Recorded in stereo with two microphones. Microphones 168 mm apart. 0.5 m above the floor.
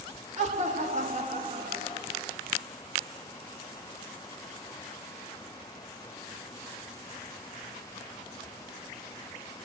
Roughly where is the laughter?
Right.